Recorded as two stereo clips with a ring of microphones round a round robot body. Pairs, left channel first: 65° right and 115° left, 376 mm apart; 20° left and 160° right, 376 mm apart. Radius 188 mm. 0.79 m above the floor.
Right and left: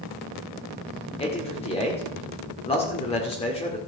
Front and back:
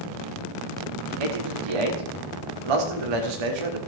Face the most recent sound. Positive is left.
turn(degrees=-145)